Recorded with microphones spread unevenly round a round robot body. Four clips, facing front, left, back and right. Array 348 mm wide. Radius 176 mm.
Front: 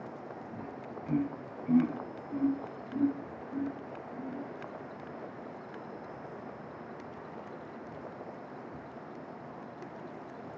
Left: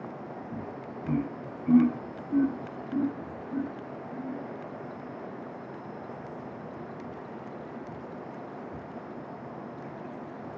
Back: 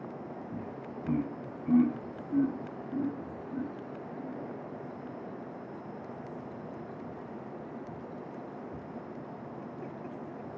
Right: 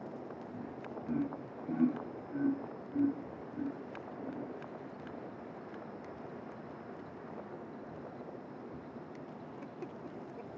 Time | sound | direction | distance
0.5 | laughter | 120° left | 3.5 m